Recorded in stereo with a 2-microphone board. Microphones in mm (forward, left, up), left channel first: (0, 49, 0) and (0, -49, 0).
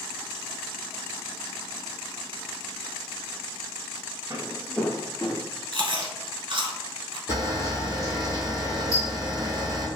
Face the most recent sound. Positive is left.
turn(degrees=35)  # may be behind; listen again after turning